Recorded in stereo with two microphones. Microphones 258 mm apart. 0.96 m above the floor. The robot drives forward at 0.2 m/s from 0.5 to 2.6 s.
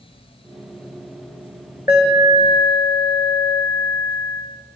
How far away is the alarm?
About 8.5 m.